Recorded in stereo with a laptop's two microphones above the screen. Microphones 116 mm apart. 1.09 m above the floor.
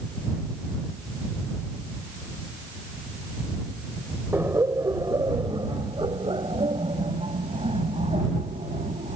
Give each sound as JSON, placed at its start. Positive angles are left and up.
{"t": 4.3, "sound": "laughter", "side_deg": -20}